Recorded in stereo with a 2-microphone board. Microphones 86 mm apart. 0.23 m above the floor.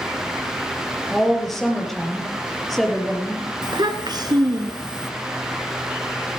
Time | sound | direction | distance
1.1 | a woman speaking | centre (ahead or behind) | 5 m
3.6 | a child speaking | 55° right (ahead or behind) | 2.0 m